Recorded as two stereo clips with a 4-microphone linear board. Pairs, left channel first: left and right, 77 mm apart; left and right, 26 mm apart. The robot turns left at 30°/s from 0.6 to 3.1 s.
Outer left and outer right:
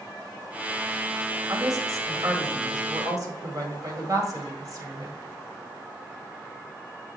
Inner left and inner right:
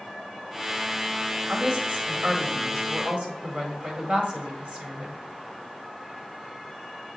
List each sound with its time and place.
1.5 s a woman speaking: 45° right (ahead or behind), 1.7 m